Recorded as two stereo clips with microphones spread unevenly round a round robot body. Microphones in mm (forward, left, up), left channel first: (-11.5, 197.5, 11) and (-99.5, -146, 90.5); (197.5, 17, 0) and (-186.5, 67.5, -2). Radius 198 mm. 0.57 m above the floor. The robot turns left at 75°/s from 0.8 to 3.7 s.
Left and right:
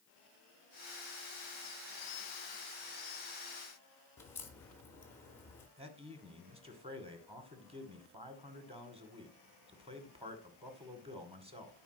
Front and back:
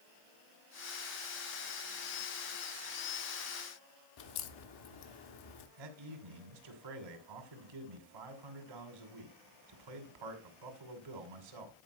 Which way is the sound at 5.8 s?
175° left.